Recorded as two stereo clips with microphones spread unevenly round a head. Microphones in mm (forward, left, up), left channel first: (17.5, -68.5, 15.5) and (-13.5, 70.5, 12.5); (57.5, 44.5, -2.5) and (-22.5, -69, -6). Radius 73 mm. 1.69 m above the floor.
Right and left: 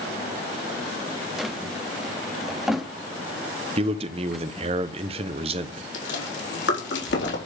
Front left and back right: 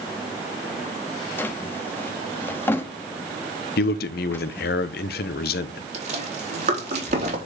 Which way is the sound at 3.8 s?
50° left.